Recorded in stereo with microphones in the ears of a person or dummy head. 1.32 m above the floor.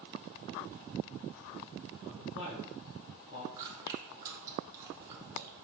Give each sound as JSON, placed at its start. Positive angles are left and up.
{"t": 2.0, "sound": "a man speaking", "side_deg": 65, "distance_m": 1.7}
{"t": 3.6, "sound": "chewing", "side_deg": -20, "distance_m": 0.6}